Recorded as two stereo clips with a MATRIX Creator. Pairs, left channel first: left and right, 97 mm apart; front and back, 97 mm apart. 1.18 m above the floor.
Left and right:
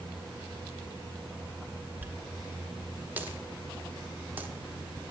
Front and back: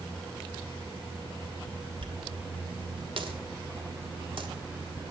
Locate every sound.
2.0 s a dropped coin: 160° right, 1.1 m